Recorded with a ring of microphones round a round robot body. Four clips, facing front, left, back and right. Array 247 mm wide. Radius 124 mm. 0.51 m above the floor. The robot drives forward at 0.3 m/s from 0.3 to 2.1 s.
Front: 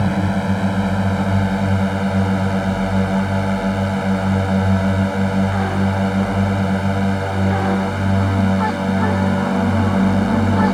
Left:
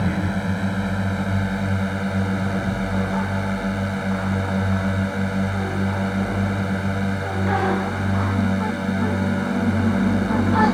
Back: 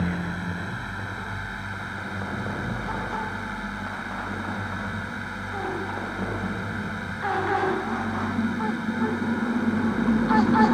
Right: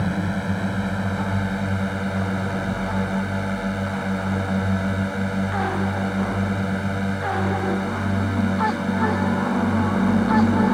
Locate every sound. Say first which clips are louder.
0.0 s a drone: left 1 dB, front 10 dB; straight ahead